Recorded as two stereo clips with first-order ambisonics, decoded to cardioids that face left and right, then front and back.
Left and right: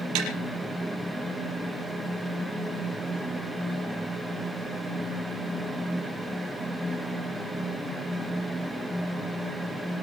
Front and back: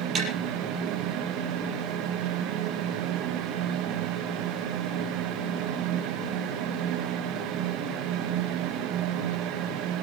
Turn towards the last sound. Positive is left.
turn(degrees=-115)